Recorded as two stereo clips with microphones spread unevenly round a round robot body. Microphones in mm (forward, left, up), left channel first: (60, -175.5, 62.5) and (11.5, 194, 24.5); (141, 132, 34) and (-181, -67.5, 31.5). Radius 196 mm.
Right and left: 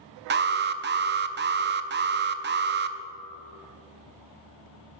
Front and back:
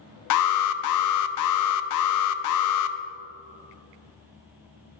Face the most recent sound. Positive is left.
turn(degrees=50)